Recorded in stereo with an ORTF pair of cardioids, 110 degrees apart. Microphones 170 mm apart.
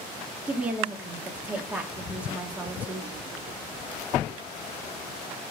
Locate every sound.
0.5 s a woman speaking: 10° right, 2.5 m